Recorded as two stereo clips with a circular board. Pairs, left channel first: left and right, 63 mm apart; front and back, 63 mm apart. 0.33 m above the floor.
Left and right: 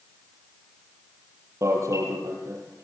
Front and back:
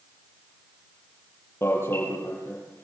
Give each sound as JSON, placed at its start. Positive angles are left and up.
{"t": 1.6, "sound": "an alarm", "azimuth_deg": -50, "distance_m": 7.5}